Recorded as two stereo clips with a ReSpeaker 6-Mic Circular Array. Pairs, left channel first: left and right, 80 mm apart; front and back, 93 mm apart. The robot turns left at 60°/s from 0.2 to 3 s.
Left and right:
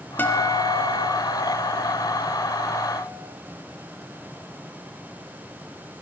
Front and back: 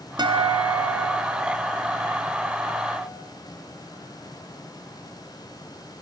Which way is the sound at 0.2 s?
155° left.